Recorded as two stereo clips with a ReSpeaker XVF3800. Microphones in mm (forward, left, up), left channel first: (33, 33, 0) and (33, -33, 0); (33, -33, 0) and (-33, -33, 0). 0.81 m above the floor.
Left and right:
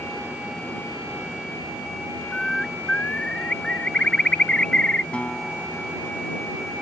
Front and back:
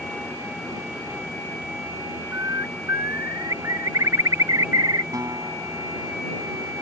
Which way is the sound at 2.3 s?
160° left.